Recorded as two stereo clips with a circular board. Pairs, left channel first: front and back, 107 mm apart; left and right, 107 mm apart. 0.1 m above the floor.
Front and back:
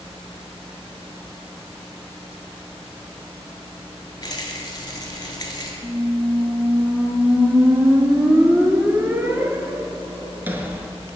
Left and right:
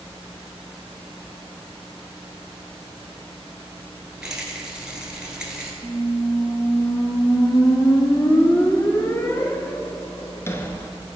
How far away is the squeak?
About 0.5 m.